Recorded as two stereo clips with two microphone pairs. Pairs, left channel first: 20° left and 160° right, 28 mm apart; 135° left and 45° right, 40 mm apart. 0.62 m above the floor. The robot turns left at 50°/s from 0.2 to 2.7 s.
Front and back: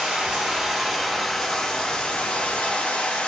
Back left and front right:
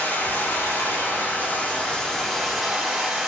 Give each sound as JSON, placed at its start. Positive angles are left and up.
{"t": 0.0, "sound": "running water", "azimuth_deg": 165, "distance_m": 2.5}